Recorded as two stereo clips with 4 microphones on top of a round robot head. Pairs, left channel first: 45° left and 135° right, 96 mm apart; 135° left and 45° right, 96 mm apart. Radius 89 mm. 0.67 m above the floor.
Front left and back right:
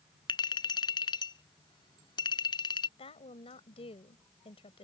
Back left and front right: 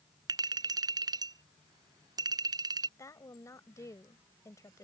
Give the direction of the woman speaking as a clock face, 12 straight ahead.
10 o'clock.